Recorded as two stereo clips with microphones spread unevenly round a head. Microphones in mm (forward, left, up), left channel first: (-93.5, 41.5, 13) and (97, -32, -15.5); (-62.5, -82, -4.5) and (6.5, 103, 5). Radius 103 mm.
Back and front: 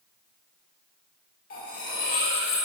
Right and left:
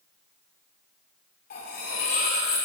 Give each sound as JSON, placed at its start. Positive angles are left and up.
{"t": 1.5, "sound": "cutlery clinking", "azimuth_deg": -155, "distance_m": 2.5}